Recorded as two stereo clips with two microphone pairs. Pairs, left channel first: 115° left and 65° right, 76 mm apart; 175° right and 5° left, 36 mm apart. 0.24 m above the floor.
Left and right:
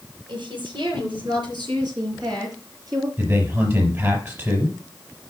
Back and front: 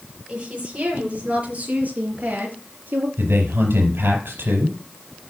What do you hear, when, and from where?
0.3 s a woman speaking: 60° right, 6 m; by 3.1 s 30° right, 4.5 m
3.2 s a man speaking: 10° right, 4.5 m